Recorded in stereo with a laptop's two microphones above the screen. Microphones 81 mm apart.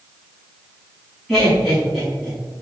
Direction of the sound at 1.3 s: 5° left (ahead or behind).